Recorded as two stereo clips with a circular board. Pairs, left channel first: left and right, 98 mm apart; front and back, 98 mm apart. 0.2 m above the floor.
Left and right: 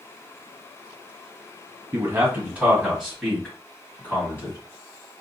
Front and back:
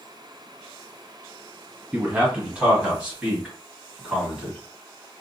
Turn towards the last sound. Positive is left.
turn(degrees=105)